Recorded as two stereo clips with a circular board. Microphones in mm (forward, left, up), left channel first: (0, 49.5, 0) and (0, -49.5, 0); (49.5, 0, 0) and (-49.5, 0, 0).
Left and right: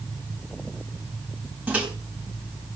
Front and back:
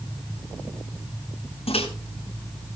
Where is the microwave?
15° right, 3.5 m.